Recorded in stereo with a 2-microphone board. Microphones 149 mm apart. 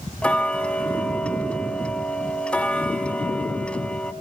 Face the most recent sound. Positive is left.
turn(degrees=10)  # may be behind; listen again after turning